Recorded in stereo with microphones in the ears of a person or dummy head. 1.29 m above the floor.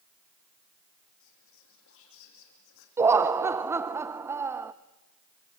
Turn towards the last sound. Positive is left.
turn(degrees=-10)  # may be behind; listen again after turning